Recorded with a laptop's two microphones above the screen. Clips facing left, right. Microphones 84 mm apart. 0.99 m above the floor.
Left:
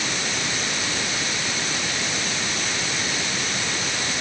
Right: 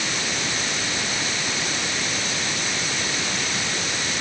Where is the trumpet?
I don't hear a trumpet.